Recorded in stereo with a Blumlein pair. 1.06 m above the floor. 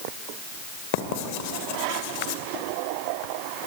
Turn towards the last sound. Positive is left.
turn(degrees=45)